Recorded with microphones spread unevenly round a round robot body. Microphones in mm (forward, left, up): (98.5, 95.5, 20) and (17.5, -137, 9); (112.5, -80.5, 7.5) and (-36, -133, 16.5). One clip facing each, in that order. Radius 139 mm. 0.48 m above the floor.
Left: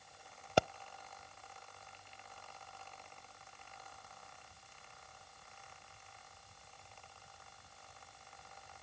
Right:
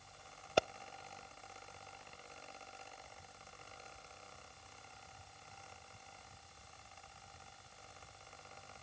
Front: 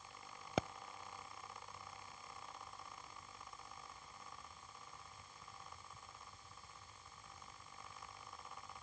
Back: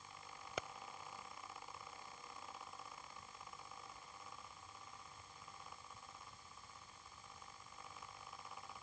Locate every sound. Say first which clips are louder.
0.6 s a pop: left 2 dB, front 8 dB; 65° left